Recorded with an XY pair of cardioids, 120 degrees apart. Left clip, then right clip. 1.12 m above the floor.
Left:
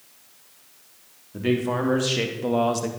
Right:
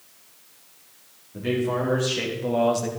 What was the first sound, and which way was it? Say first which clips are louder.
A man speaking: left 1 dB; 30° left.